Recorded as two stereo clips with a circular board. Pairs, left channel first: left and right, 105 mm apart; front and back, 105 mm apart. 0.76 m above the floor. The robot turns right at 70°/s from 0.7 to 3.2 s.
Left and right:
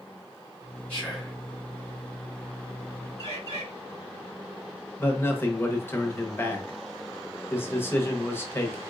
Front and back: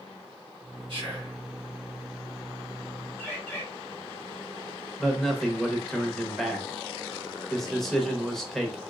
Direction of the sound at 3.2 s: 70° right.